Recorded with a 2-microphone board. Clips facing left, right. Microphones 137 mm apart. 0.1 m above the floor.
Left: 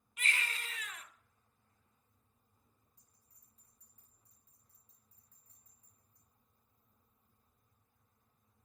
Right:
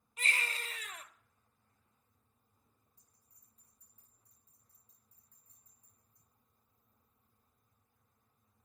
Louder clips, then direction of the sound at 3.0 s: Even; 75° left (ahead or behind).